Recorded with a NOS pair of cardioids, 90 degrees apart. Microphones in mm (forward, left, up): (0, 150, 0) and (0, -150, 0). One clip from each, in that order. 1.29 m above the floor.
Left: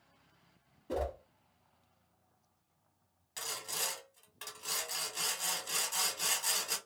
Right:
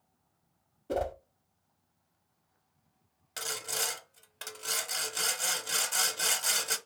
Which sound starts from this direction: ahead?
A whoosh, at 0.9 s.